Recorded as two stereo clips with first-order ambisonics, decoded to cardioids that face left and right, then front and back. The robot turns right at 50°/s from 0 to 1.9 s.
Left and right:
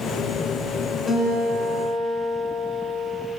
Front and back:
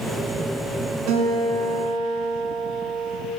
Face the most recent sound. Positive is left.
turn(degrees=-150)